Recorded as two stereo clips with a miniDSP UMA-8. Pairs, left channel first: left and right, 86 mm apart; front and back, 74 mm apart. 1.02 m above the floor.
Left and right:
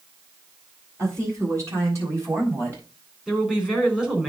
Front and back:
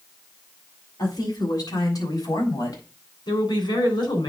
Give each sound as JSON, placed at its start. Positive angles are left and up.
{"t": 1.0, "sound": "a woman speaking", "azimuth_deg": -35, "distance_m": 7.5}
{"t": 3.3, "sound": "a woman speaking", "azimuth_deg": -10, "distance_m": 4.0}